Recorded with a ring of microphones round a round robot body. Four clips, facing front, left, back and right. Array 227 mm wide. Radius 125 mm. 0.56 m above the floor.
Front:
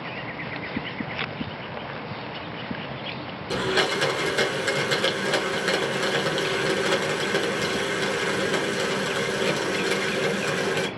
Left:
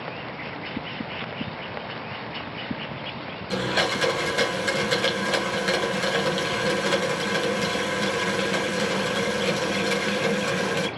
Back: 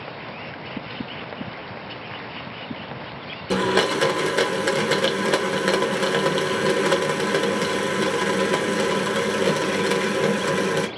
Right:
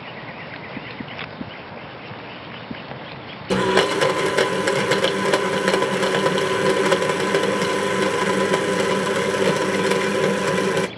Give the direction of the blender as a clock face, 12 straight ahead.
4 o'clock.